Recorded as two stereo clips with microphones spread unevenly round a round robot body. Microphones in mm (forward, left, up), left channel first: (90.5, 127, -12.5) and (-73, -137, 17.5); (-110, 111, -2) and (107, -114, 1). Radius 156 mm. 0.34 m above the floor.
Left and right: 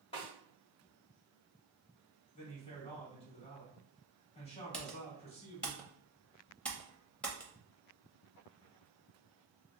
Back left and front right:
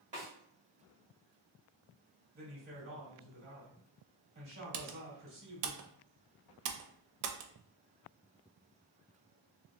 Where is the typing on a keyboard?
25° right, 0.5 m.